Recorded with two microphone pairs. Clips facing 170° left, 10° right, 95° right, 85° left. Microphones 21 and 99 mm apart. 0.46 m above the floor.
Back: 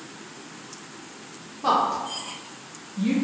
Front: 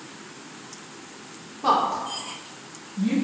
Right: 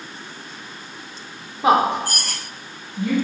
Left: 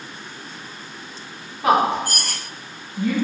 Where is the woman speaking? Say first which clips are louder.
Even, right 1 dB; 70° right, 0.7 m; by 3.1 s 175° left, 1.4 m.